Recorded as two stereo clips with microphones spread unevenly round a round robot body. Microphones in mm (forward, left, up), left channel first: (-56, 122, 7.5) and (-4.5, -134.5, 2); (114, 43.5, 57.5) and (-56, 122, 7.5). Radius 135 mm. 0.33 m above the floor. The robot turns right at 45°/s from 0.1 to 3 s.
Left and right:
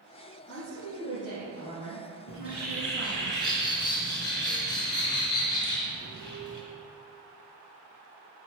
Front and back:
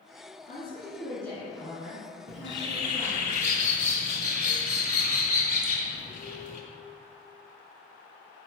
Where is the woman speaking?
20° left, 4 m; by 3.3 s 135° left, 4 m.